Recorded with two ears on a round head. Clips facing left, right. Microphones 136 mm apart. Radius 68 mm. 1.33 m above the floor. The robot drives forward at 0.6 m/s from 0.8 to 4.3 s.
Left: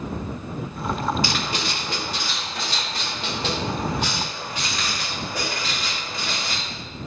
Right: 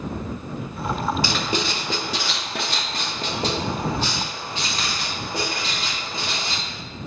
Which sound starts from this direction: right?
Writing, at 1.2 s.